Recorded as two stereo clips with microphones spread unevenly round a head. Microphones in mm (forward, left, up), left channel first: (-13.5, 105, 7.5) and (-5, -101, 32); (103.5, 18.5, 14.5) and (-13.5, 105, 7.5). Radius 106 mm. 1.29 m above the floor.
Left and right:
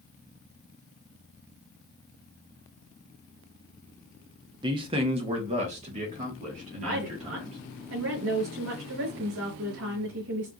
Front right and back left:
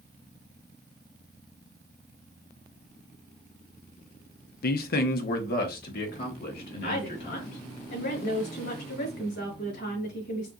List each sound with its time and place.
4.6 s a man speaking: 20° right, 0.5 m; by 7.6 s 30° right, 2 m
6.8 s a woman speaking: 65° right, 4 m